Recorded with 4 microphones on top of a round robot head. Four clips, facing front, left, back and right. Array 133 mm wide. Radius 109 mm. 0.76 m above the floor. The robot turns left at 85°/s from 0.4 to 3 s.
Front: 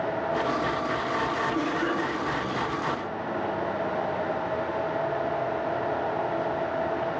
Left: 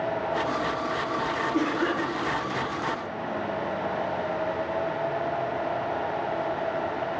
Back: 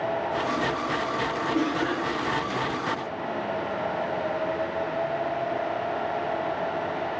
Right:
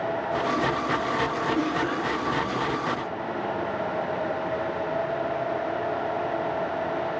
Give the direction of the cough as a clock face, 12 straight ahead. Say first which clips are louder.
Even, back 1 dB; 8 o'clock.